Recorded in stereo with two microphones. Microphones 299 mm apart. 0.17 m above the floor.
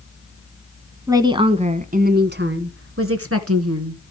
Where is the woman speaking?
10° right (ahead or behind), 1.4 m; by 4.1 s 55° right (ahead or behind), 2 m.